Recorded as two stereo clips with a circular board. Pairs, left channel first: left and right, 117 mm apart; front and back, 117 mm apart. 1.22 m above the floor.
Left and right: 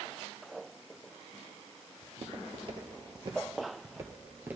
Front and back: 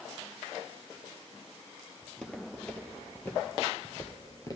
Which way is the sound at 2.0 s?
85° right.